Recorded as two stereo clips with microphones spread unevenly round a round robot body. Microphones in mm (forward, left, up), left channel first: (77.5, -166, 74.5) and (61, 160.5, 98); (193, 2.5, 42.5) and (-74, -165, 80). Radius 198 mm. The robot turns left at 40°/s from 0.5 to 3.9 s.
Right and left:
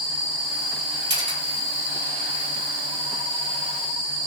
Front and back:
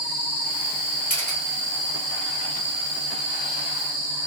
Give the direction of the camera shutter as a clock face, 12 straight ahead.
9 o'clock.